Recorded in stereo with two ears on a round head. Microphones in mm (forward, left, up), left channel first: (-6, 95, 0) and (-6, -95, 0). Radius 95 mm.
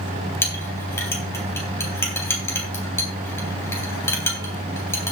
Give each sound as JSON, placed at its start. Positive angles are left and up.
{"t": 0.4, "sound": "a clink", "side_deg": 10, "distance_m": 3.5}